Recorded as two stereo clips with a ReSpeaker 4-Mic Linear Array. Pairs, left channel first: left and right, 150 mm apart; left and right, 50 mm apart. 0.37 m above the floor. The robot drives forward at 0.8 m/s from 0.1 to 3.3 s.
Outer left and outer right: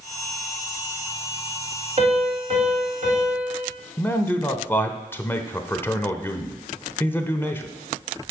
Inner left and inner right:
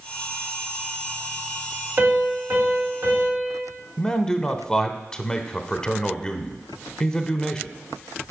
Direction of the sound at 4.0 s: 15° left (ahead or behind).